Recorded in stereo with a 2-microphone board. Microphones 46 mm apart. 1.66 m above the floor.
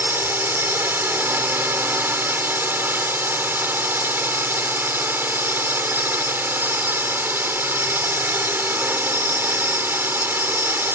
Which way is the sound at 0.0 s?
50° right (ahead or behind).